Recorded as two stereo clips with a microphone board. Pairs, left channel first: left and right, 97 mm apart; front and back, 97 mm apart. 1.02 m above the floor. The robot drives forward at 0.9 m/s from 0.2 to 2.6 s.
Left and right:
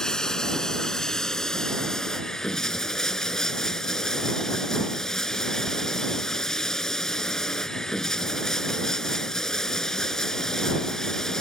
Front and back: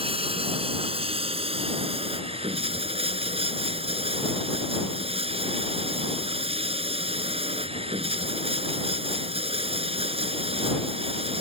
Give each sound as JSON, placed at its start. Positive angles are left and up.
{"t": 0.0, "sound": "running water", "azimuth_deg": 175}